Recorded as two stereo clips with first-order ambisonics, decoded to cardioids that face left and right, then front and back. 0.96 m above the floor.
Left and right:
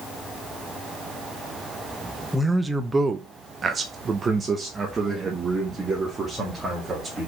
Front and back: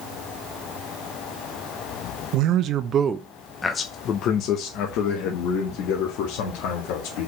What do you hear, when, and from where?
2.3 s a man speaking: 170° right, 0.8 m; by 7.3 s 15° right, 2.5 m